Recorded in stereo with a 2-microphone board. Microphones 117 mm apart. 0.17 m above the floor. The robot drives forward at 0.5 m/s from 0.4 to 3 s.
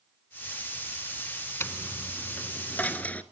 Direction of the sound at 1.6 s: 20° left (ahead or behind).